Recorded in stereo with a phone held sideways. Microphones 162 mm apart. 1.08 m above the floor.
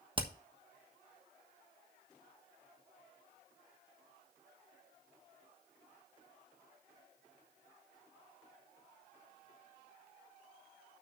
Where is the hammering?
30° right (ahead or behind), 1.2 m.